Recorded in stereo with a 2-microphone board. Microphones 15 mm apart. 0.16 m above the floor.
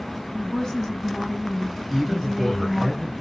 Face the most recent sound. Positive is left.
turn(degrees=0)  # may be behind; listen again after turning